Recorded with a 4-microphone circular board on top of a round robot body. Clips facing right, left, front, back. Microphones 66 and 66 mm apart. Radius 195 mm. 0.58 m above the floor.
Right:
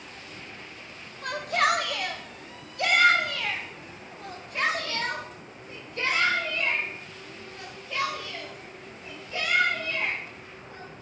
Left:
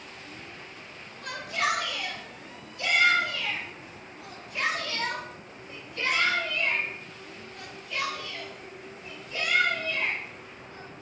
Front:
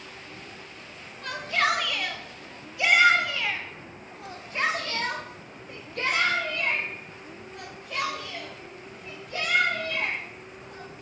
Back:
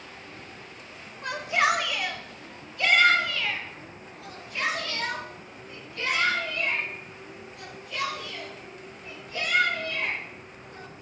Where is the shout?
115° right, 2 m; by 11.0 s 20° right, 6.5 m.